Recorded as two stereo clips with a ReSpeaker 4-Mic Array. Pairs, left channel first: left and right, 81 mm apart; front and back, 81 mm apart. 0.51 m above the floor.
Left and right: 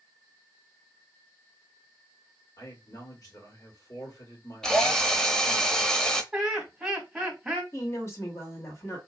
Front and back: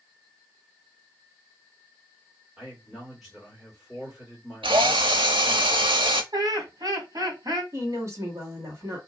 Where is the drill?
170° left, 0.7 m.